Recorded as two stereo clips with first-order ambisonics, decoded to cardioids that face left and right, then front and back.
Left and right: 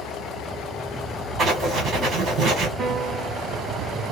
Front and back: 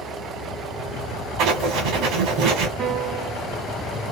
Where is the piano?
150° right, 0.8 m.